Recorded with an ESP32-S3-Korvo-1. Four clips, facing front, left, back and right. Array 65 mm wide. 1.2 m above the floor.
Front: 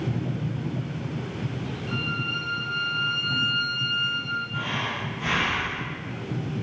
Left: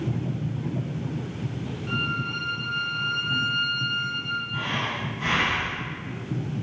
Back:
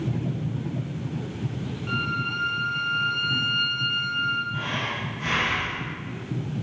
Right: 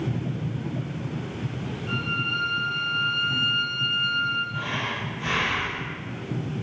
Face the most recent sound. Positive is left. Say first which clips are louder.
# even, even
turn(degrees=80)